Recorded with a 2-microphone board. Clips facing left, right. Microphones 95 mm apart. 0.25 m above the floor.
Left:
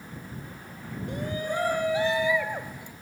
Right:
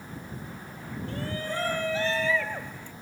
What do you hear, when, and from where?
1.1 s a shout: 15° left (ahead or behind); by 2.9 s 10° left (ahead or behind)